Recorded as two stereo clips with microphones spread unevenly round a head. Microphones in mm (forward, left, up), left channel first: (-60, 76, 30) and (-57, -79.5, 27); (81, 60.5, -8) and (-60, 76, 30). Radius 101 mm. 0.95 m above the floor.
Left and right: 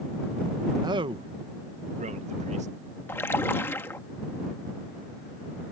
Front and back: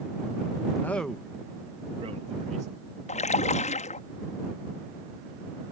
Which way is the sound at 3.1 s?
15° left.